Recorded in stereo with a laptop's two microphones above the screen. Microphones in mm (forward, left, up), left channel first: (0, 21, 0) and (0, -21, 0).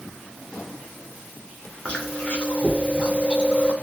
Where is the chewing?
30° left (ahead or behind), 0.9 m.